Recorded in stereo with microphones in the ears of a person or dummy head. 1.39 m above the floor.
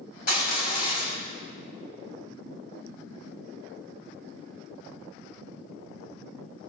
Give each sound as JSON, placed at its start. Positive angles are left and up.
{"t": 0.3, "sound": "crushing", "side_deg": 60, "distance_m": 4.0}